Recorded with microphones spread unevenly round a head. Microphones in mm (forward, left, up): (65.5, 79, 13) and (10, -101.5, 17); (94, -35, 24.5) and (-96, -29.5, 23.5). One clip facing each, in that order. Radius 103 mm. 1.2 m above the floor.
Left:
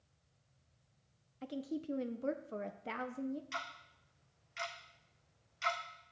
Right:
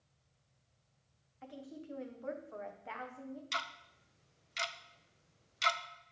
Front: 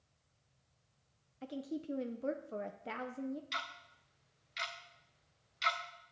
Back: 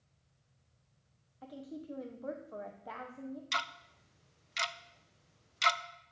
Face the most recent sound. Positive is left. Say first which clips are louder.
# right 1 dB, back 5 dB
turn(degrees=-155)